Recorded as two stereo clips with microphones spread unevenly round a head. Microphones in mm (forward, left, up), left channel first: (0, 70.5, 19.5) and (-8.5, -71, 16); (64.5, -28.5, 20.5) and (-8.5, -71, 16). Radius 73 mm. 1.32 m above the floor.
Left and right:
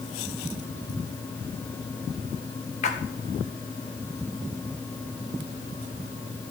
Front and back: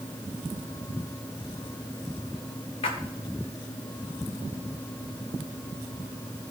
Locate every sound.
2.8 s a splash: 45° left, 1.4 m